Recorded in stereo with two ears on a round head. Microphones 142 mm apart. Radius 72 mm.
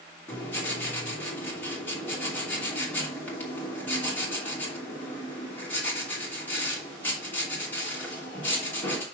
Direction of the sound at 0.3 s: 10° left (ahead or behind).